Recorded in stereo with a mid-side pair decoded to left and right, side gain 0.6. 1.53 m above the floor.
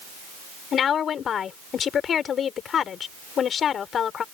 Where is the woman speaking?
45° left.